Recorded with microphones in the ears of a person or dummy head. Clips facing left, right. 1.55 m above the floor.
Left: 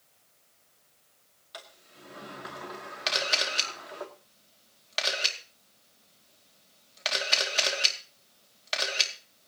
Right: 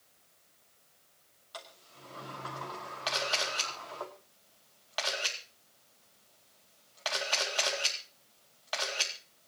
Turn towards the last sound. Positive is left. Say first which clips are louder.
# left 2 dB
turn(degrees=25)  # may be behind; listen again after turning